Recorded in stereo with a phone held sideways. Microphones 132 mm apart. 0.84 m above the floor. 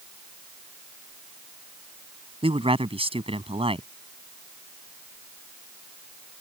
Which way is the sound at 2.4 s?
45° right (ahead or behind).